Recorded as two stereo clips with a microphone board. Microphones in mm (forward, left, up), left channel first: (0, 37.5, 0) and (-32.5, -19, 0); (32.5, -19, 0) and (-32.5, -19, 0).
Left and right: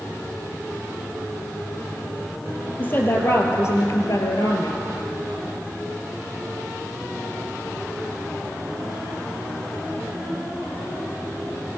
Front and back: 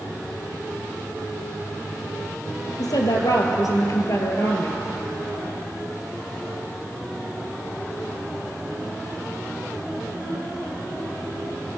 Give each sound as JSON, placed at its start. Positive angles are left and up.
{"t": 2.8, "sound": "a woman speaking", "azimuth_deg": 0, "distance_m": 3.0}